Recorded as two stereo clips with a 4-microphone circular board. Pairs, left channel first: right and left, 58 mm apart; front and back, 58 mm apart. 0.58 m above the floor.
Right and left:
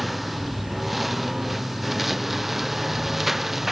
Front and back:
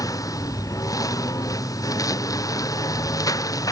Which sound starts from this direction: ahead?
A lawn mower, at 0.0 s.